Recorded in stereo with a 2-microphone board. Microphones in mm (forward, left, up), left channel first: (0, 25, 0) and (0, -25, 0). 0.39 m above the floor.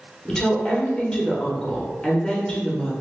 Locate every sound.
0.2 s a woman speaking: 15° left (ahead or behind), 0.8 m